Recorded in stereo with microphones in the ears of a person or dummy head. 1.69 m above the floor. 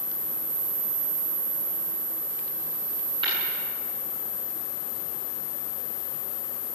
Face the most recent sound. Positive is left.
turn(degrees=-25)  # may be behind; listen again after turning